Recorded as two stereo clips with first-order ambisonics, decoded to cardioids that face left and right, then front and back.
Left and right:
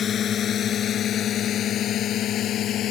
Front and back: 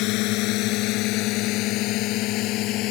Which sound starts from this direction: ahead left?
A drone, at 0.0 s.